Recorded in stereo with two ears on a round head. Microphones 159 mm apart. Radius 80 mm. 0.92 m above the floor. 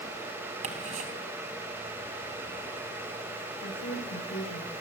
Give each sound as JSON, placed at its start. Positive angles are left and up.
{"t": 0.6, "sound": "ticking", "side_deg": -40, "distance_m": 4.0}
{"t": 3.6, "sound": "a woman speaking", "side_deg": 80, "distance_m": 5.0}